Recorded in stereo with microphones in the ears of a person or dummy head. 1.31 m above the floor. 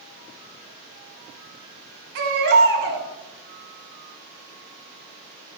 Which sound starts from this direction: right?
A baby crying, at 2.1 s.